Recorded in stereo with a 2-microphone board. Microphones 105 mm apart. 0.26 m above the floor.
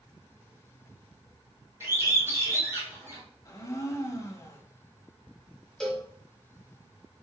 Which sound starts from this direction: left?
A blender, at 3.5 s.